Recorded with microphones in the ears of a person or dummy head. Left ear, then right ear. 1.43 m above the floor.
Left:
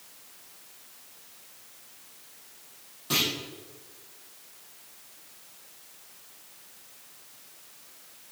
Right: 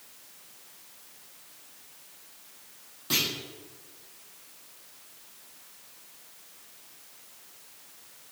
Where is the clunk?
15° right (ahead or behind), 1.3 m.